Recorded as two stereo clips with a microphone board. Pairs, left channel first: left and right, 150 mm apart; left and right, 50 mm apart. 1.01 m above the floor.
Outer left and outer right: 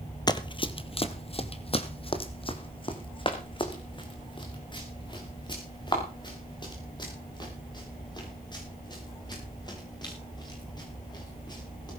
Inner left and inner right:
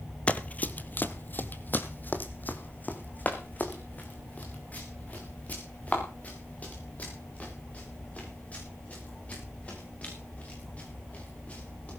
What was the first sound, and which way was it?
Running footsteps, 25° left (ahead or behind).